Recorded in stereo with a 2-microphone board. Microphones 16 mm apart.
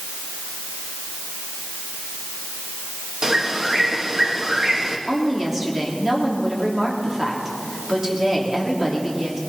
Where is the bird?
40° right (ahead or behind), 1.8 m.